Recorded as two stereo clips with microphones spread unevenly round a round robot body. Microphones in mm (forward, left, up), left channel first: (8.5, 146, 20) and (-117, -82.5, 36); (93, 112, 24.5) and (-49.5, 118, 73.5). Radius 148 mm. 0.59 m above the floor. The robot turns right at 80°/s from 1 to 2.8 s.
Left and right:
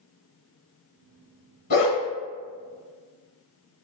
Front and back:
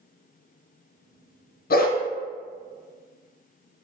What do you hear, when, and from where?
1.7 s a dog barking: straight ahead, 1.1 m; by 2.0 s 20° left, 1.1 m